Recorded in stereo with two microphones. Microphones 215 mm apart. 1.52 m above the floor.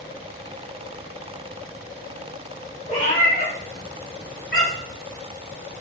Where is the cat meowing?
30° left (ahead or behind), 1.4 m; by 5.0 s 65° left (ahead or behind), 2 m.